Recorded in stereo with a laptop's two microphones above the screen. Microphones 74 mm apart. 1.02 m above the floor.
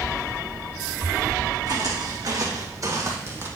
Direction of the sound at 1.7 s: 65° right (ahead or behind).